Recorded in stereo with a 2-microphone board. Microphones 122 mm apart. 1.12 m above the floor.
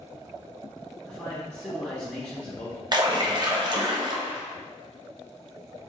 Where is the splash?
35° right (ahead or behind), 0.6 m.